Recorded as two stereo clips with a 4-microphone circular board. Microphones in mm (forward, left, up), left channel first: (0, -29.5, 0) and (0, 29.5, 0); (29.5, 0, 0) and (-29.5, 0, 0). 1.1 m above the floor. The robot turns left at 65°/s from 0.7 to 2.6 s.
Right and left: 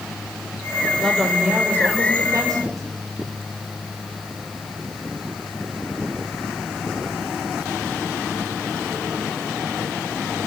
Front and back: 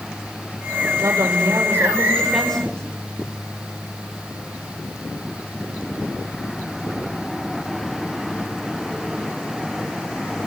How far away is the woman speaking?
About 5 m.